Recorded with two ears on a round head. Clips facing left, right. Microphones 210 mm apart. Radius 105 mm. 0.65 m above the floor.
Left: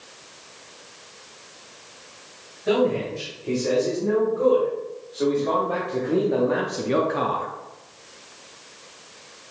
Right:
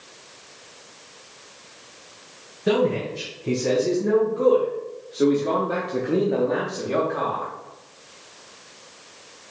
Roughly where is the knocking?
No knocking in this recording.